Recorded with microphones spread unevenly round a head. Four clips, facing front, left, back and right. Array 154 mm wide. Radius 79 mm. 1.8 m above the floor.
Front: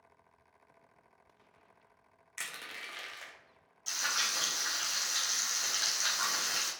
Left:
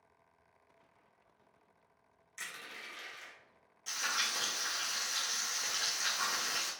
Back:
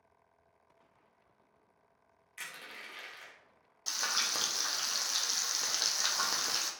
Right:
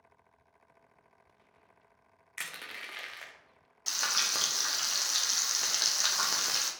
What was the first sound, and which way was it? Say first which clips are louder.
Crushing: right 4 dB, front 2 dB; 70° right.